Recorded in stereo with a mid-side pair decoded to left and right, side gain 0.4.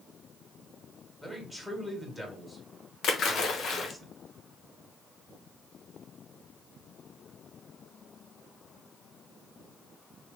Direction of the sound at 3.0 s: 65° left.